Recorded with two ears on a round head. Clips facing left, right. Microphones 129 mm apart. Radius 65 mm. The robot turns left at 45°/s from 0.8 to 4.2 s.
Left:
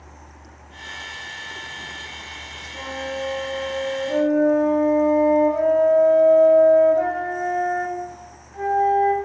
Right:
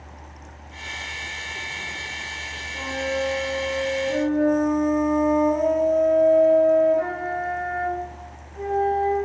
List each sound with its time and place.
2.7 s a flute: 175° left, 4.5 m; by 9.1 s 110° left, 4.5 m